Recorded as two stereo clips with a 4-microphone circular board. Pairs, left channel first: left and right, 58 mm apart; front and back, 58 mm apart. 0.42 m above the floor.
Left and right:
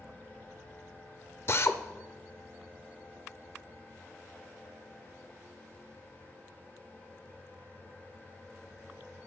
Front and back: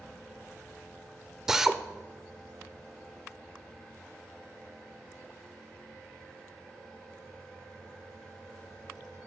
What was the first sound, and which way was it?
A drill, 100° left.